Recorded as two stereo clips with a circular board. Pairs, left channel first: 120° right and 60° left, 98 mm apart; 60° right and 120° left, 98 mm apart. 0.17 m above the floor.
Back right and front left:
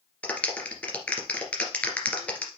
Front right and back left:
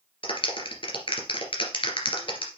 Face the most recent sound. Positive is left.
turn(degrees=-45)